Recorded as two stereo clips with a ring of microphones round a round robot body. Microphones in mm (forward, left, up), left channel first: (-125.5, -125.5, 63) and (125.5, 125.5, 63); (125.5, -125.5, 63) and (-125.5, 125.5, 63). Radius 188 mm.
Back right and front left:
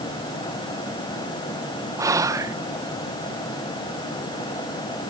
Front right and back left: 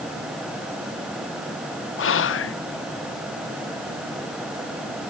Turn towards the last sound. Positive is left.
turn(degrees=-30)